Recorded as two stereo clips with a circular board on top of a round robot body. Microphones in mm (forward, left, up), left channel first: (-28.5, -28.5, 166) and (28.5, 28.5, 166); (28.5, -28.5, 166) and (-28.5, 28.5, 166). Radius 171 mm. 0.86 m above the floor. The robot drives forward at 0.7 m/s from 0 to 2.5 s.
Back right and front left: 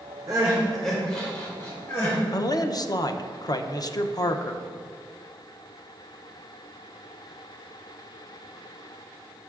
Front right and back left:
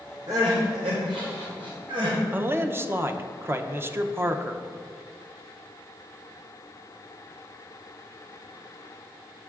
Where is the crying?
90° left, 0.6 m; by 2.2 s 165° left, 1.5 m.